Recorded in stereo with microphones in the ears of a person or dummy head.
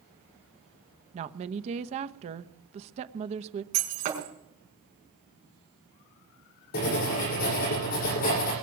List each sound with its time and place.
1.1 s a woman speaking: 35° right (ahead or behind), 0.9 m
3.7 s breaking glass: 45° right (ahead or behind), 5.5 m
6.7 s writing: 50° left (ahead or behind), 8.5 m